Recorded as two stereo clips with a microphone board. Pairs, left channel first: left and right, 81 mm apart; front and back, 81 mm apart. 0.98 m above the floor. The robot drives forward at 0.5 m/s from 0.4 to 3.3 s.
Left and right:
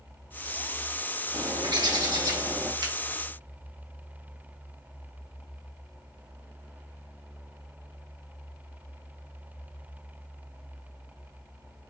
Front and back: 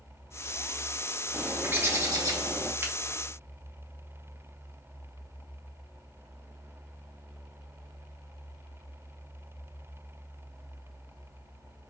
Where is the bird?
105° right, 0.9 m; by 2.7 s 140° right, 1.3 m.